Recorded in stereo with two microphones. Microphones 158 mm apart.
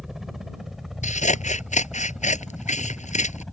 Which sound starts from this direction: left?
Scissors, at 1.0 s.